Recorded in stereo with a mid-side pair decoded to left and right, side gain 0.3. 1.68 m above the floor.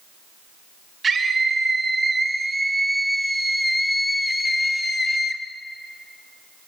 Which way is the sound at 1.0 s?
50° right.